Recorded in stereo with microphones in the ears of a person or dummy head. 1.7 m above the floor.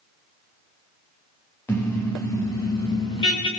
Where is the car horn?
10° left (ahead or behind), 5.5 m; by 3.5 s 20° left (ahead or behind), 6 m.